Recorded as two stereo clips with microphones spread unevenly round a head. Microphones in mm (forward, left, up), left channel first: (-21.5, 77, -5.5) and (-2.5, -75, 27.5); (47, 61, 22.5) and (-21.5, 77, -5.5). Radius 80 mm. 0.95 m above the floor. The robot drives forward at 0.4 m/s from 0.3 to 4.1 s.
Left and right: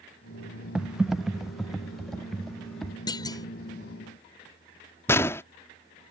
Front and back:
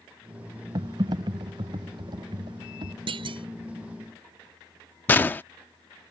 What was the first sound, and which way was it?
Typing on a keyboard, 170° right.